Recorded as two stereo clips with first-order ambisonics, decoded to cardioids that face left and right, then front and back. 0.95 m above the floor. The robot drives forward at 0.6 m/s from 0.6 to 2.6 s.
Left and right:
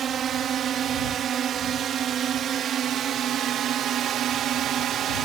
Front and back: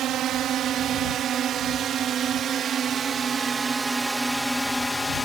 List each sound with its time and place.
0.0 s a drone: 140° right; by 5.3 s 70° right